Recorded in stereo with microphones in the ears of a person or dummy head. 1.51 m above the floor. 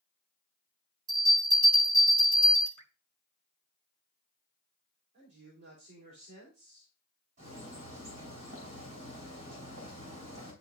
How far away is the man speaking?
About 3.5 m.